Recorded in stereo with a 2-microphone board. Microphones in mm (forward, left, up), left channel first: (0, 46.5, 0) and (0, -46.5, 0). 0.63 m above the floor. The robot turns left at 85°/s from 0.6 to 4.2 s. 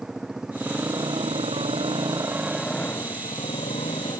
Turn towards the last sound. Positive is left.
turn(degrees=50)